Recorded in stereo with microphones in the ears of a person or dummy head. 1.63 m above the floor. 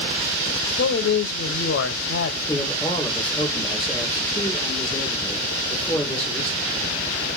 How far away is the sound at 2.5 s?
About 4 m.